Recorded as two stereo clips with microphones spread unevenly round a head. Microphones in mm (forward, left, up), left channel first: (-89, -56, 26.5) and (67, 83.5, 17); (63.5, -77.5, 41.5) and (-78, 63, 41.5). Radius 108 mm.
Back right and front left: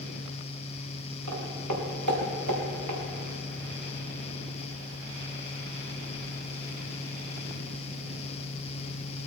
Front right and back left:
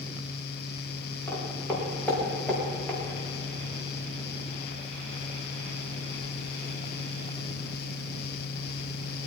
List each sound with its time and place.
1.3 s footsteps: 35° left, 4.5 m; by 3.0 s 45° left, 4 m